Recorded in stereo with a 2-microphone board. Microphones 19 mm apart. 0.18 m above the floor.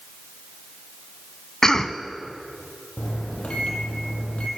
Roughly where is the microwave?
Left.